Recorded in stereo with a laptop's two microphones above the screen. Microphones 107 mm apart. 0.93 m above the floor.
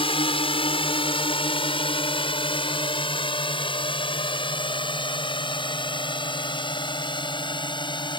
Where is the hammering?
No hammering in this recording.